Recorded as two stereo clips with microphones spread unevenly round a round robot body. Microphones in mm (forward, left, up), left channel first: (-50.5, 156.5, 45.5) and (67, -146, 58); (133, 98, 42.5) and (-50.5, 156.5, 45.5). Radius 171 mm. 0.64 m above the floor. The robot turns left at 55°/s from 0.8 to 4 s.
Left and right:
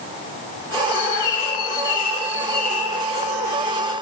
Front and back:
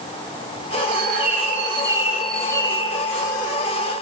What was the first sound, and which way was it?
A bird, 145° left.